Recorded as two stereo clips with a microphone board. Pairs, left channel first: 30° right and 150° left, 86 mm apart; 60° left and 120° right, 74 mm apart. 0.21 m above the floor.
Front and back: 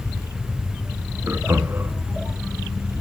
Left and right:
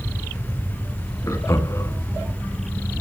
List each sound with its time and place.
1.3 s laughter: 95° left, 1.8 m